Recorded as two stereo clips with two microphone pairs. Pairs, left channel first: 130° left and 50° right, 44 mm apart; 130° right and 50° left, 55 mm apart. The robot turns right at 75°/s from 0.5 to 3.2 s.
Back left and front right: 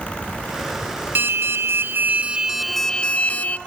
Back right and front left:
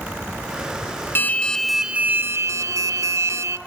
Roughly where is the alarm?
Right.